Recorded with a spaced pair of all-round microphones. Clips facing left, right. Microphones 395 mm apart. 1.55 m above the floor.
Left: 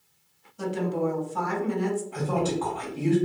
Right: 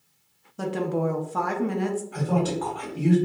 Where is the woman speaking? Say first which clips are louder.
Right 1 dB; 65° right (ahead or behind), 0.6 m.